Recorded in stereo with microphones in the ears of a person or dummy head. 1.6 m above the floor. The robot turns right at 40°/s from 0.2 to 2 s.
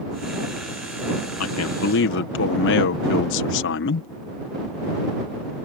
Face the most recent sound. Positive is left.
turn(degrees=60)  # may be behind; listen again after turning